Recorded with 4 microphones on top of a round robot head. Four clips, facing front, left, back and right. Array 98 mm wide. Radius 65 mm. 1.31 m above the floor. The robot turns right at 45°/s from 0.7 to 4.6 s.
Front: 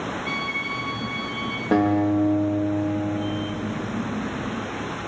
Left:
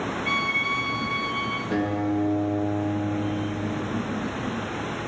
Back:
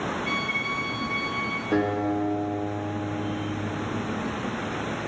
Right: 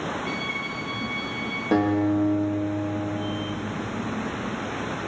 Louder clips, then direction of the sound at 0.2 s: Left 5 dB, even; 90° left.